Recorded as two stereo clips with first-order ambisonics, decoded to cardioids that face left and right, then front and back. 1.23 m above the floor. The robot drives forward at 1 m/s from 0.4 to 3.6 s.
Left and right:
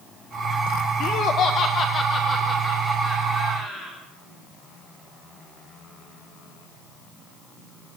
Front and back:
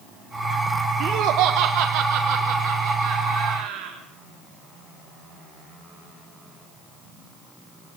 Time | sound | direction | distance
1.0 | laughter | 135° left | 1.2 m